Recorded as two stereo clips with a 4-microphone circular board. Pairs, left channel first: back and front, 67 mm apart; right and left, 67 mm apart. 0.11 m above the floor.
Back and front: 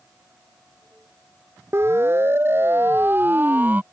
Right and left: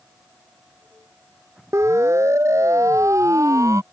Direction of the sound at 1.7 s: 50° left.